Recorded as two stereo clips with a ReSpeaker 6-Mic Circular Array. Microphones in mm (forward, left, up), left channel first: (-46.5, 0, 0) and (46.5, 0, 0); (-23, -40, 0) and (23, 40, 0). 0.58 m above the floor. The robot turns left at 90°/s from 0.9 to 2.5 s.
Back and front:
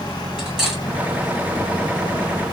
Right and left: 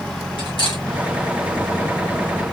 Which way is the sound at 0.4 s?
85° right.